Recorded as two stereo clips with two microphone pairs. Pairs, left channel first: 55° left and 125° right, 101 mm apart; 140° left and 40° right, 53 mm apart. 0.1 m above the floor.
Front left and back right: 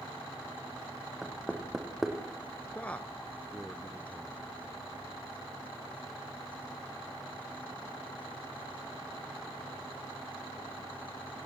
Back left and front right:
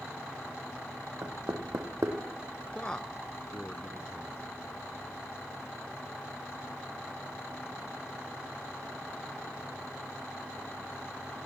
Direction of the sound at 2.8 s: 105° left.